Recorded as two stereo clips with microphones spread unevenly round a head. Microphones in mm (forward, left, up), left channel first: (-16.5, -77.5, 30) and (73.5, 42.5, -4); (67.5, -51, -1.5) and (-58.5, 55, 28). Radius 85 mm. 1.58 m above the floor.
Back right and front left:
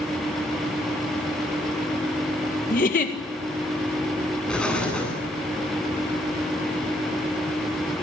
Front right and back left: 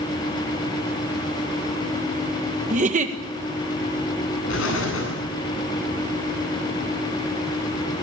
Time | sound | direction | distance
2.7 | a giggle | 170° right | 1.9 m
4.5 | an explosion | 45° right | 9.5 m